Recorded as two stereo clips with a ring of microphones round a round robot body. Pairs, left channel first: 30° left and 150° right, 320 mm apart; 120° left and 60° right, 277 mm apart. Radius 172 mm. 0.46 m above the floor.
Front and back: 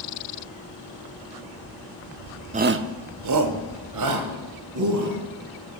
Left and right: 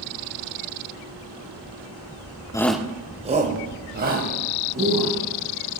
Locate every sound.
2.5 s a shout: 175° left, 0.7 m; by 5.2 s 120° right, 4 m